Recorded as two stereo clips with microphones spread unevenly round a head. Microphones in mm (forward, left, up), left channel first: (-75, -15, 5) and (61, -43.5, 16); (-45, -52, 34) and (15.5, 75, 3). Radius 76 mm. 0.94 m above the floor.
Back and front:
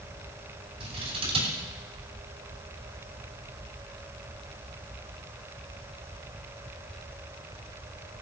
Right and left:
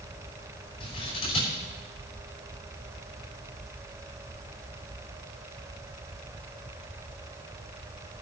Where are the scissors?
55° right, 6 m.